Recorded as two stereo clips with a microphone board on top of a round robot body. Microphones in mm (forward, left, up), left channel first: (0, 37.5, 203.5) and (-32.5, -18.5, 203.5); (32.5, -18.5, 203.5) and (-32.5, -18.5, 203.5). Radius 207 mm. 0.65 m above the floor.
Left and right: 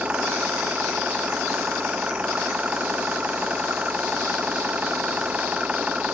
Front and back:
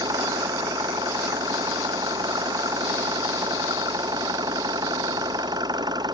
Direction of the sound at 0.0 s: 170° left.